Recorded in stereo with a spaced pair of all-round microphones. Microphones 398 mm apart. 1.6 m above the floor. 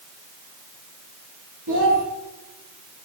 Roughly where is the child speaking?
Right.